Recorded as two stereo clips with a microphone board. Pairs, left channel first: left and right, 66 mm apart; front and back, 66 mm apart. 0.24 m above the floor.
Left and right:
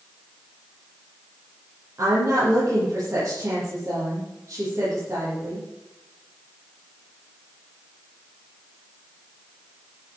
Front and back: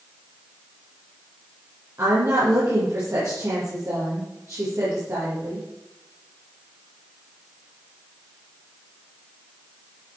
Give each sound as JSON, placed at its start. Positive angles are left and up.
{"t": 2.0, "sound": "a woman speaking", "azimuth_deg": -140, "distance_m": 8.5}